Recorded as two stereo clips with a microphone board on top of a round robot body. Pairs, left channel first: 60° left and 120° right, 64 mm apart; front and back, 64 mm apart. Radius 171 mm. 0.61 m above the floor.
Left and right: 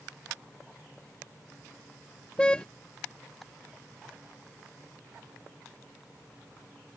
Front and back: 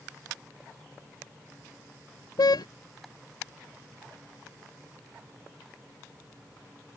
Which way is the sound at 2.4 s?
15° right.